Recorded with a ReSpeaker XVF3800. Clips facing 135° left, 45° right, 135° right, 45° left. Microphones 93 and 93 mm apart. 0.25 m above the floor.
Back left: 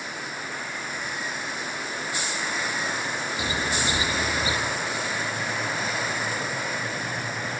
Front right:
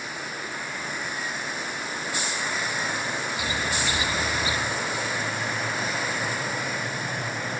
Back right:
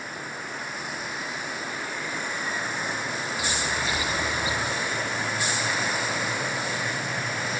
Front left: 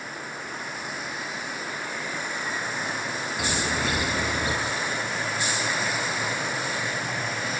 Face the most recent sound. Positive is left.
turn(degrees=70)